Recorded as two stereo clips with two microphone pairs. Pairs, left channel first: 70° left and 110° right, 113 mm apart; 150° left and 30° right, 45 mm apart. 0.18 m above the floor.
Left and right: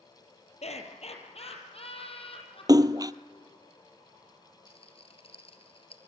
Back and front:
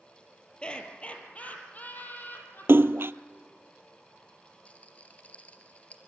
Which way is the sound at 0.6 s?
85° left.